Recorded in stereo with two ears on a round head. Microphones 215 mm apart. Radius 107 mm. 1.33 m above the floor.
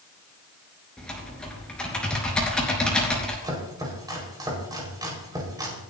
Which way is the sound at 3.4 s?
15° right (ahead or behind).